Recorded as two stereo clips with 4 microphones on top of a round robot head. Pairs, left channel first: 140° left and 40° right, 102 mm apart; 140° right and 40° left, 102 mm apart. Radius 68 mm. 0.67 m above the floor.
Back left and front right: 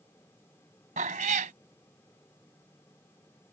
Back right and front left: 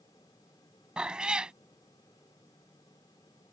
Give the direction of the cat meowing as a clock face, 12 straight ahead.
1 o'clock.